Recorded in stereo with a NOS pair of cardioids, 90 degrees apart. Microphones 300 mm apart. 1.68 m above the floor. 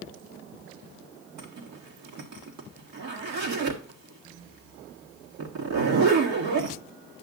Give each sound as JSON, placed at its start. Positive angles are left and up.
{"t": 1.4, "sound": "a zipper", "azimuth_deg": -65, "distance_m": 1.7}